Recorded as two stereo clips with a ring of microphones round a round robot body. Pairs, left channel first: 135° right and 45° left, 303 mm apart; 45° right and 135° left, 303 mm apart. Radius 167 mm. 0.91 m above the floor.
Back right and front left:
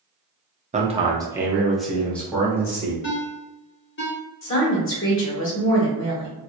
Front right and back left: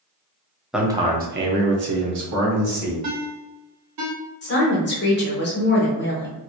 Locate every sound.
0.7 s a man speaking: 50° left, 0.8 m; by 2.9 s 145° left, 1.8 m
3.0 s a ringtone: 170° left, 1.0 m
4.4 s a woman speaking: 95° right, 1.4 m